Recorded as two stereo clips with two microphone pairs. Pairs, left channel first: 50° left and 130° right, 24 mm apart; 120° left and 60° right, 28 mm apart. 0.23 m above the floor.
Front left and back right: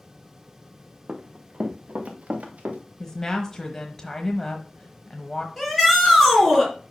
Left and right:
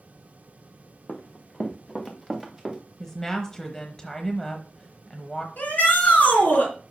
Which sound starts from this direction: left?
A woman speaking, at 3.0 s.